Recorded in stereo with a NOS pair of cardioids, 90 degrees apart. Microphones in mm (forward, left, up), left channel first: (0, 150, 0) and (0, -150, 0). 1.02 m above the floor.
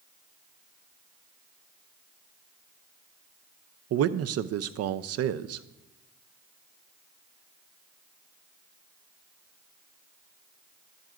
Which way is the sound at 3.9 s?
55° right.